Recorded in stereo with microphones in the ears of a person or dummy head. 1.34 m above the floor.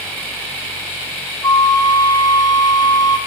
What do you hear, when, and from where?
1.4 s a flute: 20° left (ahead or behind), 1.6 m